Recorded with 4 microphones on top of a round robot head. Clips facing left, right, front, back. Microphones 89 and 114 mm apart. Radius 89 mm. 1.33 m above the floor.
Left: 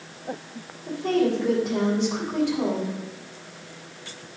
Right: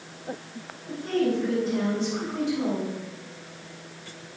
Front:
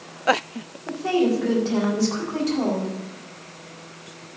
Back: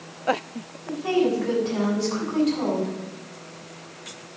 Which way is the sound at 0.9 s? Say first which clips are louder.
Left 3 dB, front 1 dB; 50° left.